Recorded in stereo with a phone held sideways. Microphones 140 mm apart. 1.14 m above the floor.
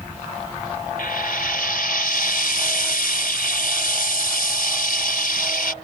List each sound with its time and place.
1.0 s frying: 85° left